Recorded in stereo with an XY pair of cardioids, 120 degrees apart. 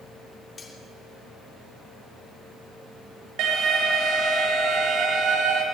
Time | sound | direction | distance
0.6 | cutlery clinking | 35° left | 3 m
3.4 | an alarm | 65° right | 4.5 m